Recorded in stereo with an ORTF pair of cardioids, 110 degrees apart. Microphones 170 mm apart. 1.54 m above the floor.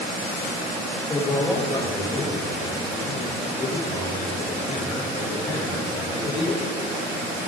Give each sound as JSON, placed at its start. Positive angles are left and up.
{"t": 1.1, "sound": "a man speaking", "azimuth_deg": 30, "distance_m": 5.0}